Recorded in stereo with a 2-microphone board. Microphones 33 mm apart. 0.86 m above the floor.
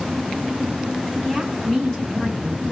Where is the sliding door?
No sliding door in this recording.